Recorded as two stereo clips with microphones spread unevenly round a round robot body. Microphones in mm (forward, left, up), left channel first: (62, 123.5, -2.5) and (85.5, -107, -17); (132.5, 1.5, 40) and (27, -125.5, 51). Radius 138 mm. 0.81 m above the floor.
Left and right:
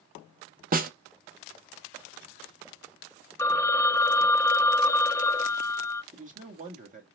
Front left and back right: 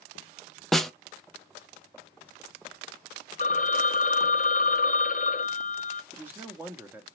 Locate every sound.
0.7 s a snare drum: 35° right, 0.7 m
3.4 s a phone ringing: 15° left, 0.9 m
6.1 s a man speaking: 50° right, 1.2 m